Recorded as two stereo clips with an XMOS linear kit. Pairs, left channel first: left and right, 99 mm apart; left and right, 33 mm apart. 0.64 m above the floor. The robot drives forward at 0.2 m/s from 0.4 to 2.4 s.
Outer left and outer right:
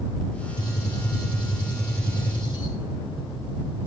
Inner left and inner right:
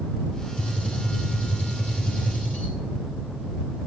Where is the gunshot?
45° left (ahead or behind), 2 m; by 2.8 s 50° left (ahead or behind), 2.0 m.